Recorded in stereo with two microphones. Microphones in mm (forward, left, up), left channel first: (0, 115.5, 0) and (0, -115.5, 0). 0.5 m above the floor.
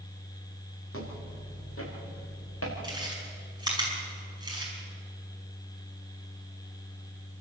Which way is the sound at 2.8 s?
20° right (ahead or behind).